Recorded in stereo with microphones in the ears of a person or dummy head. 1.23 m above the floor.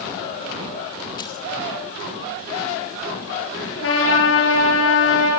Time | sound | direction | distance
1.2 | keys jangling | 25° left (ahead or behind) | 1.6 m
3.8 | a trumpet | 80° left | 7 m